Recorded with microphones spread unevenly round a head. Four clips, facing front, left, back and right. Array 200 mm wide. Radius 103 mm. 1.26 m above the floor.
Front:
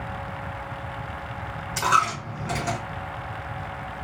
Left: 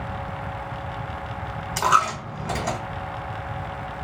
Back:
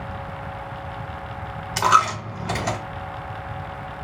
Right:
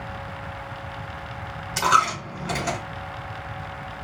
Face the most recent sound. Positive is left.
turn(degrees=165)